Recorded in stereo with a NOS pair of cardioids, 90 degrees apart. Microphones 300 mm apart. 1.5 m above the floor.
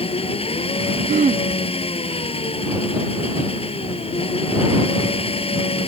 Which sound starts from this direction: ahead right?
Throat clearing, at 1.1 s.